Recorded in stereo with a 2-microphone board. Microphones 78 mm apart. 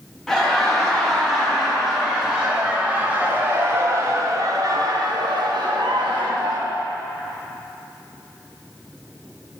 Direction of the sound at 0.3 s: 5° left (ahead or behind).